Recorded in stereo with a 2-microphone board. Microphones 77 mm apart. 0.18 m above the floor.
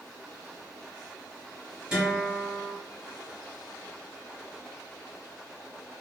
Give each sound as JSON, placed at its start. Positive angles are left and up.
{"t": 1.9, "sound": "a guitar", "side_deg": -15, "distance_m": 1.8}